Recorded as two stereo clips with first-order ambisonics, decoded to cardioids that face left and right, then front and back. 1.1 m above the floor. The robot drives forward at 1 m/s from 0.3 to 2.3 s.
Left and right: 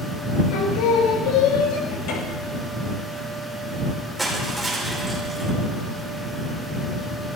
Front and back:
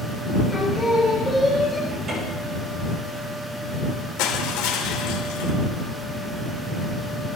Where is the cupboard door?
110° left, 6 m; by 2.6 s 115° left, 6.5 m.